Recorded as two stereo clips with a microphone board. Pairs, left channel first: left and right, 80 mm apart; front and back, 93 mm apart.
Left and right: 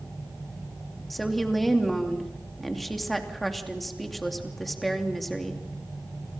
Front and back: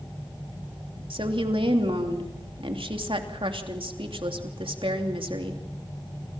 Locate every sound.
1.1 s a woman speaking: straight behind, 3 m